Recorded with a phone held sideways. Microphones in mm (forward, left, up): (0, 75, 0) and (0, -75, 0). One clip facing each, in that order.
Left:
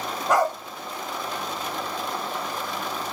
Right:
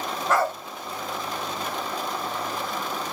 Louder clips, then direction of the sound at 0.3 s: Left 2 dB; 15° left (ahead or behind).